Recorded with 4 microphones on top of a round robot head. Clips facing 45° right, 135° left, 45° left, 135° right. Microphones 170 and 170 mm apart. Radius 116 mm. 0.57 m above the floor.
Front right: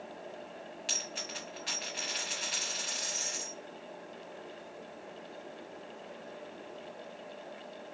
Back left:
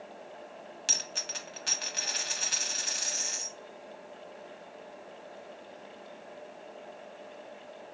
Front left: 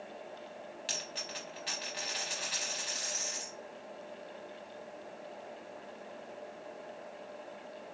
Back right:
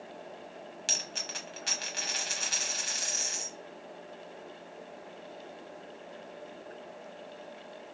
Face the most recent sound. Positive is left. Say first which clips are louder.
# even, back right 1 dB
turn(degrees=180)